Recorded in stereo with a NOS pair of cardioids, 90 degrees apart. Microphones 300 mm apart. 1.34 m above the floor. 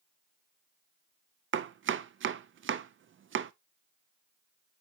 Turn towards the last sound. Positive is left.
turn(degrees=-40)